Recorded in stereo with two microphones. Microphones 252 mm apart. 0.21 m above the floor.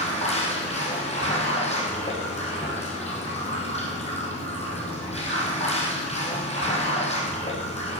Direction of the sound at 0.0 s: 25° left (ahead or behind).